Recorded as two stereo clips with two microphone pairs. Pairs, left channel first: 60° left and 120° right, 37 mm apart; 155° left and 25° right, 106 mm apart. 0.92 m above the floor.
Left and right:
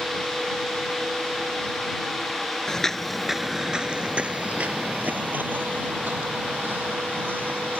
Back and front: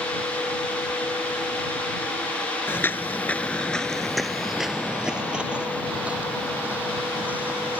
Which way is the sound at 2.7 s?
115° left.